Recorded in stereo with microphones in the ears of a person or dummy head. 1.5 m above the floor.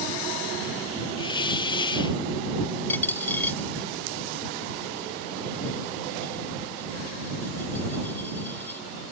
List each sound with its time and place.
1.2 s a hiss: 25° left (ahead or behind)
2.9 s a dropped coin: 10° left (ahead or behind)